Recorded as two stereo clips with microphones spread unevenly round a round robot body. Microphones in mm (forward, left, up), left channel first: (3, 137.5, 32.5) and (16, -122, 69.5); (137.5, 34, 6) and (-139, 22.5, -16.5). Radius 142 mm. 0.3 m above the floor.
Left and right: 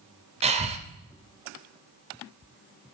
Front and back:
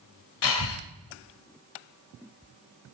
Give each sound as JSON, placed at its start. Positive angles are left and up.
{"t": 0.4, "sound": "breathing", "azimuth_deg": -20, "distance_m": 0.6}